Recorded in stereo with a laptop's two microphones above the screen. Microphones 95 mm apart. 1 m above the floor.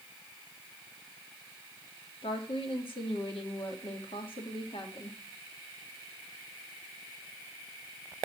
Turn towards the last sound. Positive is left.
turn(degrees=70)  # may be behind; listen again after turning